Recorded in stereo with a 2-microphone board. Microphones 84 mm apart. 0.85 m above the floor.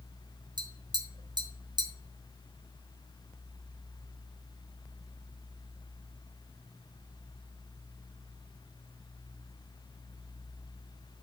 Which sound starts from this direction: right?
Tapping, at 0.6 s.